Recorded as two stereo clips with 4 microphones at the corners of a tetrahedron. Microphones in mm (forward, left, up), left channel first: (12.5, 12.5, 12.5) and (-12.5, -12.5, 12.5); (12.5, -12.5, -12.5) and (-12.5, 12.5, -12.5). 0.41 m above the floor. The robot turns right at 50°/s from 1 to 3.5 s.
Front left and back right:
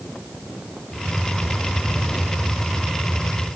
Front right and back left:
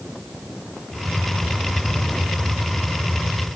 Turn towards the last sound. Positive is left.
No sound to turn to.